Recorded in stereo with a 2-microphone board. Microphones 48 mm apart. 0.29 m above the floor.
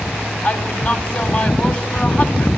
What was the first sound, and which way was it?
A woman speaking, 45° left (ahead or behind).